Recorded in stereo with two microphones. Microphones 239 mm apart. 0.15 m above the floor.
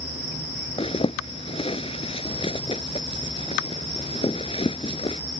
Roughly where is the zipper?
Left.